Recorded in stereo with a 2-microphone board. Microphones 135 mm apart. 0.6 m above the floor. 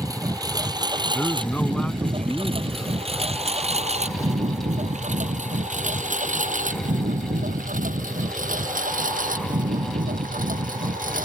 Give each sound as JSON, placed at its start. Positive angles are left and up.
{"t": 0.0, "sound": "a lawn mower", "side_deg": -25}
{"t": 1.1, "sound": "a man speaking", "side_deg": 10}